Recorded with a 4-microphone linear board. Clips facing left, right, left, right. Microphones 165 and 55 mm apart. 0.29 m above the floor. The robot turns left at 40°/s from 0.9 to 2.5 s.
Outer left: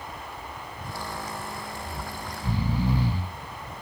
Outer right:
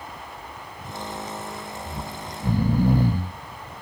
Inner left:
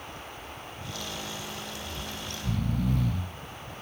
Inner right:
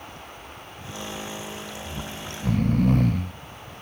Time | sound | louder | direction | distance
1.9 | snoring | outer right 2 dB, inner right 3 dB | 75° right (ahead or behind) | ?